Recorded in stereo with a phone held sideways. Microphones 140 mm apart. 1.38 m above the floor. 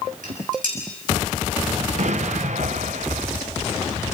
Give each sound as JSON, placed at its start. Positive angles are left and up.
{"t": 0.2, "sound": "dishes clattering", "side_deg": -75, "distance_m": 7.0}
{"t": 2.0, "sound": "an explosion", "side_deg": -60, "distance_m": 0.9}